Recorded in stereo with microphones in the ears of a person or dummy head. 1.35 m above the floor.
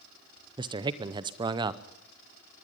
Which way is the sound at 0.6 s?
20° right (ahead or behind).